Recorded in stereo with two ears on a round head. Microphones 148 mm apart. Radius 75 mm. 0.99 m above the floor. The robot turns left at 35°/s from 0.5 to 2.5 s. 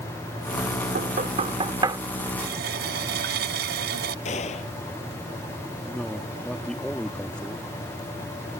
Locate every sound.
0.9 s knocking: 60° right (ahead or behind); by 2.0 s 25° right (ahead or behind)
2.4 s a running tap: 75° right (ahead or behind); by 4.2 s 70° right (ahead or behind)
4.2 s a gunshot: 40° left (ahead or behind)
5.9 s a man speaking: 5° left (ahead or behind)